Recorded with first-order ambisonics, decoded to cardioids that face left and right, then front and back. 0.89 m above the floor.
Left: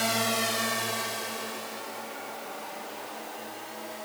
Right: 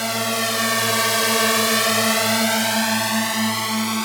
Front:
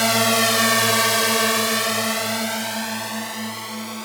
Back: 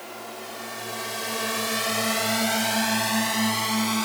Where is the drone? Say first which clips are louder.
Right 5 dB, front 19 dB; 10° right; by 4.0 s 115° right.